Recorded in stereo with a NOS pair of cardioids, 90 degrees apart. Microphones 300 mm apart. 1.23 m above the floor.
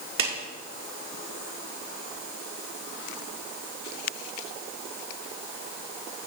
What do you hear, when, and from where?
0.2 s a clap: 45° right, 3.5 m